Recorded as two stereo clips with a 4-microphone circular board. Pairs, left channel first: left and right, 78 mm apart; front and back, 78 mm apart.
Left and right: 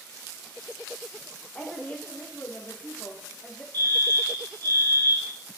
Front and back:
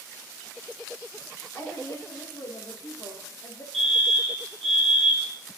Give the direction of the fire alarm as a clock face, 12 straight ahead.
3 o'clock.